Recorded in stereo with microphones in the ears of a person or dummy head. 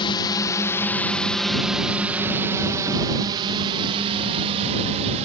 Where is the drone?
30° left (ahead or behind); by 5.2 s 40° right (ahead or behind).